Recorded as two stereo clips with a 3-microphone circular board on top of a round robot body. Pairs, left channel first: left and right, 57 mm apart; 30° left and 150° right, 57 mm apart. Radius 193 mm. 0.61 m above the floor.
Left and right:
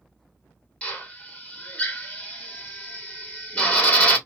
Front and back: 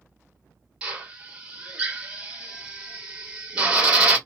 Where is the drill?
145° left, 1.4 m.